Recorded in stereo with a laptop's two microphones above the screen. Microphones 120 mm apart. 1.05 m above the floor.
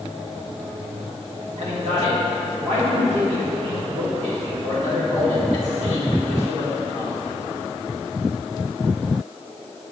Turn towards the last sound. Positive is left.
turn(degrees=-65)  # may be behind; listen again after turning